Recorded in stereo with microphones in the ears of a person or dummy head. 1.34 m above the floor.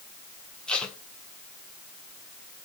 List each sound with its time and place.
0.7 s tape being pulled: 5° left (ahead or behind), 1.7 m